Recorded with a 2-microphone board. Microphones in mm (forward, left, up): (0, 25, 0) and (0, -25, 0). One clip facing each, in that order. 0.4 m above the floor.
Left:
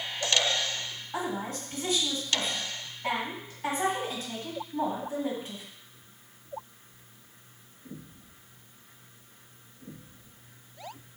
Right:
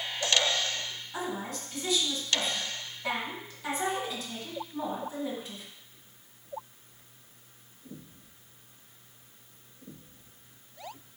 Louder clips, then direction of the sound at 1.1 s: Left 3 dB; 40° left (ahead or behind).